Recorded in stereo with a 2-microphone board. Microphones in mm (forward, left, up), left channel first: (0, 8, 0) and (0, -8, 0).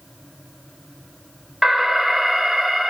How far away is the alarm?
About 6 m.